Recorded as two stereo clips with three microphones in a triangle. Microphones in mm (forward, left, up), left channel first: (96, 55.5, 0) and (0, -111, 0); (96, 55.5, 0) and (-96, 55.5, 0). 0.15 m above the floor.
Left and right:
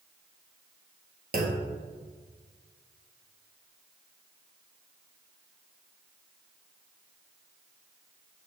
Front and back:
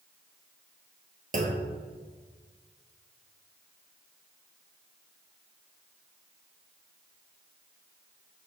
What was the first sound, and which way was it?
A clunk, 145° right.